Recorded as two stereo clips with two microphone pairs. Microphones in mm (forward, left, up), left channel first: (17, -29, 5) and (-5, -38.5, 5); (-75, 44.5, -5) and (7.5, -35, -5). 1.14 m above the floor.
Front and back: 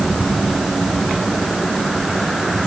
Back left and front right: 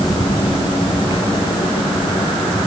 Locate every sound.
Only background noise.